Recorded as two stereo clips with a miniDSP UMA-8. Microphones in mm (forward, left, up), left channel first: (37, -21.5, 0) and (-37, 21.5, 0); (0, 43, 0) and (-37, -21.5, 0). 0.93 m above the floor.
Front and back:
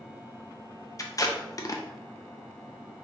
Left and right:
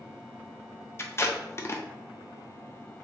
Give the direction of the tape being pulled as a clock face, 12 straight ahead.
12 o'clock.